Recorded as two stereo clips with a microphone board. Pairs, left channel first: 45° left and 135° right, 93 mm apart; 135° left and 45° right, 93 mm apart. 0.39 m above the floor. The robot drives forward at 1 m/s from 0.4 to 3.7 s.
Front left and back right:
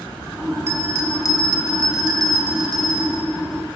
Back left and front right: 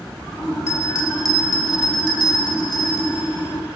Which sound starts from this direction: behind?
A bell, at 0.7 s.